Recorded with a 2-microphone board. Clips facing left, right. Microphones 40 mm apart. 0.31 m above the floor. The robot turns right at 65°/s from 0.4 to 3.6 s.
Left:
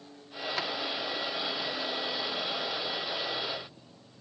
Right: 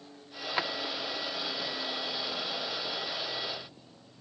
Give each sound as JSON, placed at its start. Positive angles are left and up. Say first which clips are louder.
{"t": 0.6, "sound": "a drawer", "louder": "right 3 dB", "side_deg": -20, "distance_m": 0.6}